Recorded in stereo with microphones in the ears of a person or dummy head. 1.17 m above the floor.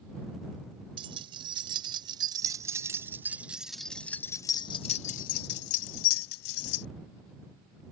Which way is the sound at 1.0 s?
30° right (ahead or behind).